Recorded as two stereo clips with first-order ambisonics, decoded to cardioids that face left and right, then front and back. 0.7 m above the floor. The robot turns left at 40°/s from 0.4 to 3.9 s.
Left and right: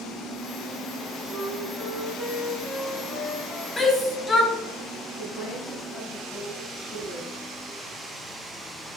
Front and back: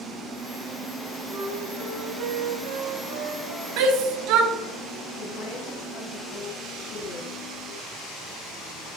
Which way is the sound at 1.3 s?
130° right.